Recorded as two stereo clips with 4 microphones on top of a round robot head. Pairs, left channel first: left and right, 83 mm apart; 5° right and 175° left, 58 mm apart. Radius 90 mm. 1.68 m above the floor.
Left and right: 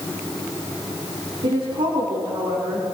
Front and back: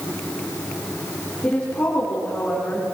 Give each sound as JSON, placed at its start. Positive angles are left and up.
{"t": 1.4, "sound": "a woman speaking", "azimuth_deg": -75, "distance_m": 5.0}